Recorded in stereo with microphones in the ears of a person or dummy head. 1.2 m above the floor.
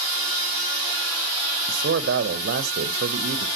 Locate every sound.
1.7 s a man speaking: 55° right (ahead or behind), 0.6 m